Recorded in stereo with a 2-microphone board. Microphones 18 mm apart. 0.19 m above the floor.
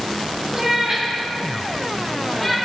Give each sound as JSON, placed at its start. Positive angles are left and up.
{"t": 0.5, "sound": "a cat meowing", "side_deg": -25, "distance_m": 7.0}